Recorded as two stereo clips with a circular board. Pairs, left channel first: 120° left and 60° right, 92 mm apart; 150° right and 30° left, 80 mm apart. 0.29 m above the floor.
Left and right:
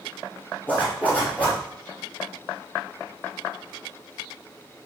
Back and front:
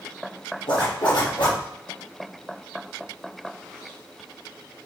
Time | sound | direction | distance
0.7 | a zipper | 165° right | 4.5 m